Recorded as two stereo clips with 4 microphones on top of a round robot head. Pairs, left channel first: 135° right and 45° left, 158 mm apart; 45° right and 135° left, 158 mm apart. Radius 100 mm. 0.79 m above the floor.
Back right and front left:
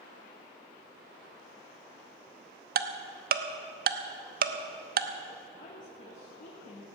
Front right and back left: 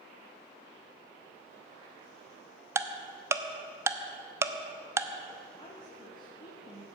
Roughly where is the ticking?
Ahead left.